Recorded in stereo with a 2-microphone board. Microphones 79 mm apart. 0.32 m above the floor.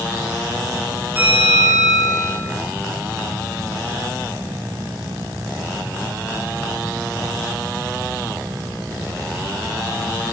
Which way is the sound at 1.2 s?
25° right (ahead or behind).